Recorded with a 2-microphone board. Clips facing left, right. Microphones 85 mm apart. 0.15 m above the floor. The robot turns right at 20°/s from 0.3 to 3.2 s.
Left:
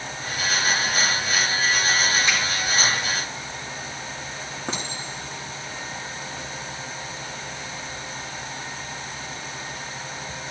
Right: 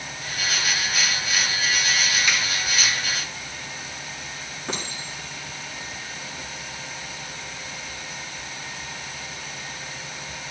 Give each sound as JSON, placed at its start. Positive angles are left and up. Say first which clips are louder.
{"t": 2.3, "sound": "a finger snap", "louder": "left 1 dB", "side_deg": 30, "distance_m": 4.0}
{"t": 4.7, "sound": "a clink", "louder": "even", "side_deg": 30, "distance_m": 6.5}